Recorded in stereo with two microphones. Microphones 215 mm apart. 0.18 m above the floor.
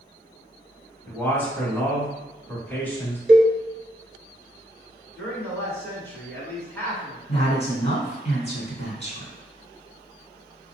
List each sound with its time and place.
1.1 s a man speaking: 10° left (ahead or behind), 1.4 m
3.3 s a cowbell: 40° right (ahead or behind), 0.8 m
5.2 s a man speaking: 10° left (ahead or behind), 1.6 m
7.3 s a woman speaking: 35° left (ahead or behind), 1.7 m